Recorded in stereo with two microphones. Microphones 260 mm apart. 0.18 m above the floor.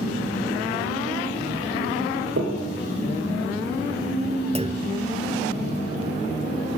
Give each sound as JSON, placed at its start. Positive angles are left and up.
{"t": 2.4, "sound": "knocking", "side_deg": -60, "distance_m": 4.5}
{"t": 4.5, "sound": "a clunk", "side_deg": -25, "distance_m": 1.1}